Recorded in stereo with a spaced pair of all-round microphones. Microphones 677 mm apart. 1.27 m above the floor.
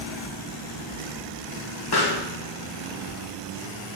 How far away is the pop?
About 1.5 m.